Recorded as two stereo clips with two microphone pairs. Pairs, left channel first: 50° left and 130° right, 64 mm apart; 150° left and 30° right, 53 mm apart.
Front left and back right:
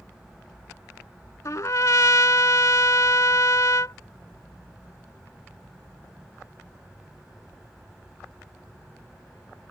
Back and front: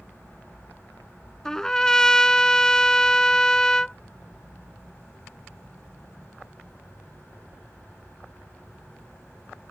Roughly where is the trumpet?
Left.